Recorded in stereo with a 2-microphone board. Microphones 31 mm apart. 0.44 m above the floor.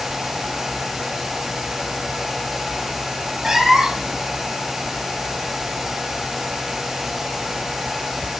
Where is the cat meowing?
15° right (ahead or behind), 1.2 m.